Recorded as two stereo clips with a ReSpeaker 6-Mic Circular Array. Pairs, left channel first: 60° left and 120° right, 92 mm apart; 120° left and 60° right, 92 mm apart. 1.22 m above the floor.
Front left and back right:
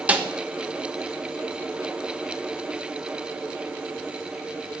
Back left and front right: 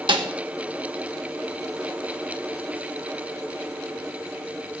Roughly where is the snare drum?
Ahead right.